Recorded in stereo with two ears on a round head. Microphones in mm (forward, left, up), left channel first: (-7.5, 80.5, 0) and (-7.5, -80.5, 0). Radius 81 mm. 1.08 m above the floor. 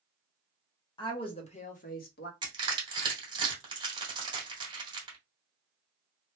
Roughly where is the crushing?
Right.